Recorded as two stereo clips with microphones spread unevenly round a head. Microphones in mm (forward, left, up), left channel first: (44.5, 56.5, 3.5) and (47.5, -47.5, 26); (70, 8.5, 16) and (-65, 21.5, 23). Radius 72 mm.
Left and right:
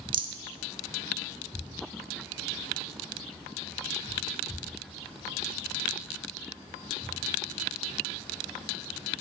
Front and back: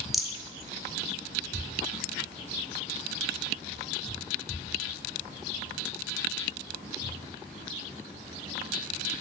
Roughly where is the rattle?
Right.